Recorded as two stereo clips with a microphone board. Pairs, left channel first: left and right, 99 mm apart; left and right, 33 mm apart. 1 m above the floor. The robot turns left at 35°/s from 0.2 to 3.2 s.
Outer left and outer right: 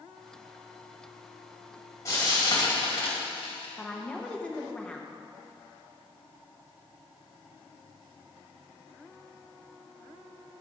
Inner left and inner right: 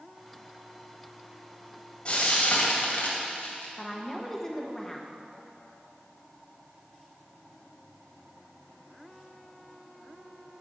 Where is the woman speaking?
10° left (ahead or behind), 0.9 m.